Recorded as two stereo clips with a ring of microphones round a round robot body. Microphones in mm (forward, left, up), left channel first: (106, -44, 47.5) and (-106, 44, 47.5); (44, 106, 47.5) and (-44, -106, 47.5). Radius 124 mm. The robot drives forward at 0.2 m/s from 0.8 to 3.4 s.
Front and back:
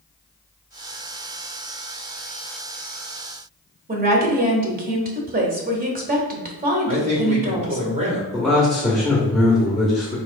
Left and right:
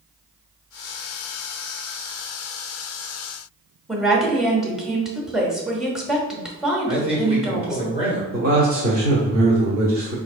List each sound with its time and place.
3.9 s a woman speaking: 160° left, 1.0 m
6.9 s a man speaking: 165° right, 1.8 m
8.3 s a man speaking: 115° right, 1.0 m